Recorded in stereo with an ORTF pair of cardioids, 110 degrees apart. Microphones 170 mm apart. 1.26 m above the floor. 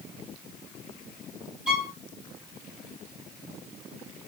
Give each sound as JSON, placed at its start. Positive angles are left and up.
{"t": 1.7, "sound": "a violin", "azimuth_deg": -5, "distance_m": 1.1}